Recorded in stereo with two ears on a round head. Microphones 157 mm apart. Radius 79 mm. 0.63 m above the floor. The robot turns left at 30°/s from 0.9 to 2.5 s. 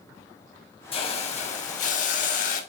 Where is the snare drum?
I don't hear a snare drum.